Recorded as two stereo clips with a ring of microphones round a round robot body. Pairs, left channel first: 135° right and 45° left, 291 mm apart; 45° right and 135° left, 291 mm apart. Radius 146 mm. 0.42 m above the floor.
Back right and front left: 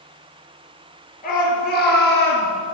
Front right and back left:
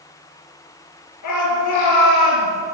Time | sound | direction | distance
1.2 | a shout | 75° right | 7 m